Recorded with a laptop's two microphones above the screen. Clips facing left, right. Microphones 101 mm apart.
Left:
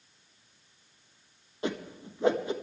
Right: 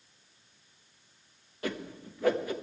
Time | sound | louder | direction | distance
1.6 | a whoosh | left 2 dB | 25° left (ahead or behind) | 1.2 m